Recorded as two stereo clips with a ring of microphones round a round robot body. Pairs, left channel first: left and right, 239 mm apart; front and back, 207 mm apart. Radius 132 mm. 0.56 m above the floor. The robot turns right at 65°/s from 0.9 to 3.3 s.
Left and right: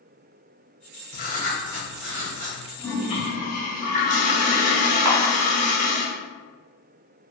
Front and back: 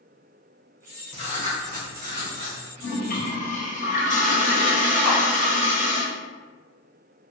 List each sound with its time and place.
1.1 s writing: 125° left, 1.0 m; by 2.6 s 140° right, 1.0 m
2.8 s a toilet flushing: 10° left, 0.7 m; by 6.0 s 40° left, 0.7 m
5.0 s a camera shutter: 100° right, 1.0 m